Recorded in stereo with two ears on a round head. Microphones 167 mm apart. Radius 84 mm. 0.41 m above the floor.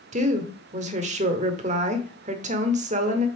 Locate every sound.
0.1 s a woman speaking: 40° right (ahead or behind), 1.0 m